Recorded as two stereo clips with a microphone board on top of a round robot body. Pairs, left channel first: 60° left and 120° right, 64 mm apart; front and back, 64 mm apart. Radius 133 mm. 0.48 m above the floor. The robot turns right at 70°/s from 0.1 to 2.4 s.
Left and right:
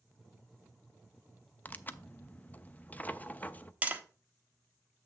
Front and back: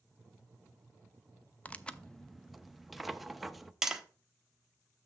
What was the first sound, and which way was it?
Tearing paper, 40° left.